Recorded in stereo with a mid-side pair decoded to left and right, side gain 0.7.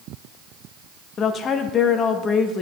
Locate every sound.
1.2 s a woman speaking: 40° left, 0.8 m